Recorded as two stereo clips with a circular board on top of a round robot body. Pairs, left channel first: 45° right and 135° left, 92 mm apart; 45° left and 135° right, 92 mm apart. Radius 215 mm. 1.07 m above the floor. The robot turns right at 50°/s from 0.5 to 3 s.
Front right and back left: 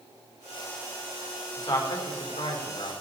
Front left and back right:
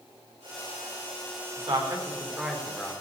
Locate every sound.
1.6 s a man speaking: 105° right, 4.5 m; by 2.9 s 35° right, 4.5 m